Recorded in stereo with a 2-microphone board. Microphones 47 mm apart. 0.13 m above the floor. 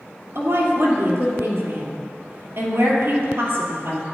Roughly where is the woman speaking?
Right.